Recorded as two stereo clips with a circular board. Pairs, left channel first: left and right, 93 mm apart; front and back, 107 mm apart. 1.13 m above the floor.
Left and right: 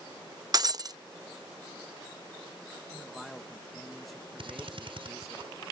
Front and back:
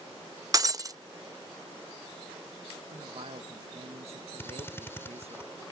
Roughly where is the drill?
Right.